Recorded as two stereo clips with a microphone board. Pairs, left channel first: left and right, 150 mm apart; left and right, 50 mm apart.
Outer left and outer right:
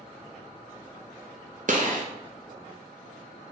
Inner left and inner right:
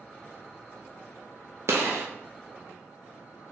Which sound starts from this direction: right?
A gunshot, at 1.7 s.